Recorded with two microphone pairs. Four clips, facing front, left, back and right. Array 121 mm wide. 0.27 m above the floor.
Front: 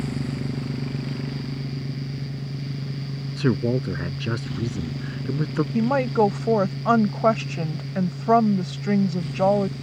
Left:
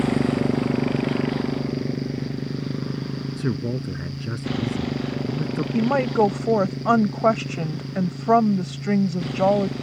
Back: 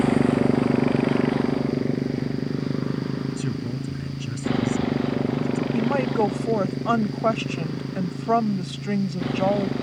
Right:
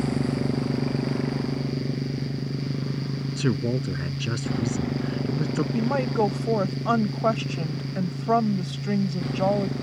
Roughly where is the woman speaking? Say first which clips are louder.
Left 6 dB, front 3 dB; ahead left.